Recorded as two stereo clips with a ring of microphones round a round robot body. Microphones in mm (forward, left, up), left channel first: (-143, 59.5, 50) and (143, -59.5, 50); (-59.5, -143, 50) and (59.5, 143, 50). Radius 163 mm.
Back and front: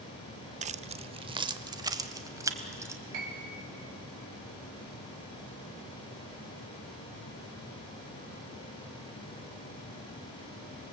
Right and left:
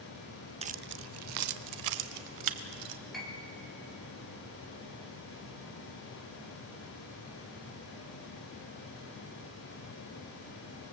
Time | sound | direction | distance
0.6 | keys jangling | 20° left | 0.5 m
3.1 | a piano | 25° right | 3.5 m